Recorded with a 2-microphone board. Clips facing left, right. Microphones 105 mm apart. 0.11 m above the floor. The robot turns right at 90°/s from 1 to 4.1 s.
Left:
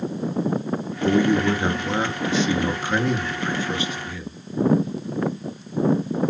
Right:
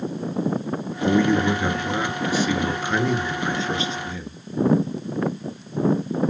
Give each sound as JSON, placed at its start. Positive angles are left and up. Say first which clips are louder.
{"t": 1.0, "sound": "a man speaking", "louder": "even", "side_deg": 0, "distance_m": 1.6}